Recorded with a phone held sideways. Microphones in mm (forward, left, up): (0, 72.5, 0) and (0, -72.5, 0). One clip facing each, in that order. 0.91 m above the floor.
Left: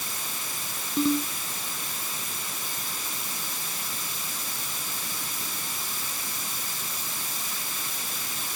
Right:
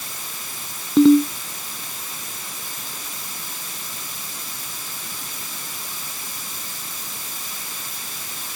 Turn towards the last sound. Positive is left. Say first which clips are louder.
# right 13 dB
turn(degrees=-80)